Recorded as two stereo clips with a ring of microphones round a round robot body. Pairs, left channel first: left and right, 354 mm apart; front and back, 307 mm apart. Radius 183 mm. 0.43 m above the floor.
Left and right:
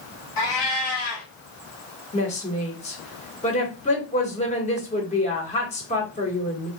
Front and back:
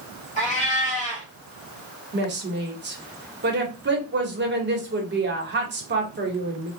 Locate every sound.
0.4 s a cat meowing: 70° left, 1.8 m
2.1 s a woman speaking: 150° left, 1.1 m